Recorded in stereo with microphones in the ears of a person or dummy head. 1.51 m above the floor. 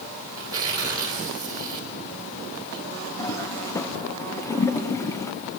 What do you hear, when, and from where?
0.3 s tearing paper: 25° right (ahead or behind), 3 m
3.2 s a toilet flushing: 20° left (ahead or behind), 1.0 m